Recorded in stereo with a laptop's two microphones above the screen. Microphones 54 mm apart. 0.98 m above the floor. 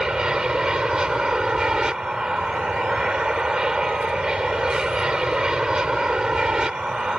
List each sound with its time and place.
0.0 s an aircraft: 15° right (ahead or behind)